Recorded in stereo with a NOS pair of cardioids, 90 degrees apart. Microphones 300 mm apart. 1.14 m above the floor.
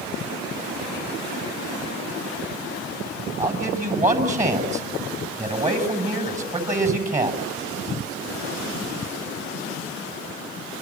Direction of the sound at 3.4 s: 25° right.